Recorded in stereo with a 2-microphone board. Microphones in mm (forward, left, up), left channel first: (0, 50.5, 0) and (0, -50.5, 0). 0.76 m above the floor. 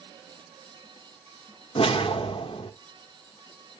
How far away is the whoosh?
About 0.9 m.